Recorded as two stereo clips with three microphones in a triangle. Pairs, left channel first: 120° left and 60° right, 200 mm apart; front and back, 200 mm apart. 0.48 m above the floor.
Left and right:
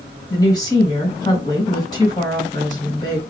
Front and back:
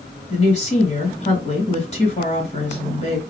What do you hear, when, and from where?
0.3 s a woman speaking: 50° left, 2.5 m